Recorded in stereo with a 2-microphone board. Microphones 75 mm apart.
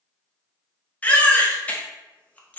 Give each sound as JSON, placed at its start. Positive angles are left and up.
{"t": 1.0, "sound": "a baby crying", "side_deg": 20, "distance_m": 0.7}